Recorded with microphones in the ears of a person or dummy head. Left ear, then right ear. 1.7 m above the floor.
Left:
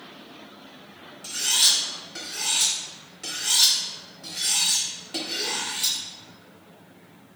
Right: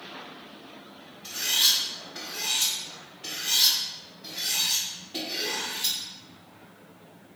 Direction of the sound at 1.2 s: 55° left (ahead or behind).